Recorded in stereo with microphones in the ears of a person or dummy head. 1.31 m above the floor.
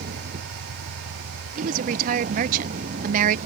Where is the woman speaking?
45° right (ahead or behind).